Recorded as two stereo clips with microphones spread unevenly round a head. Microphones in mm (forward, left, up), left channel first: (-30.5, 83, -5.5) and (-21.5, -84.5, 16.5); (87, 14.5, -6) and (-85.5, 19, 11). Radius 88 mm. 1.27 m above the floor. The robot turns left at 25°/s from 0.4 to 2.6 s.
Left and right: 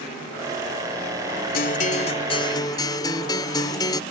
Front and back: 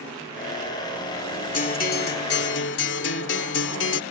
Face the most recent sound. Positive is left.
turn(degrees=20)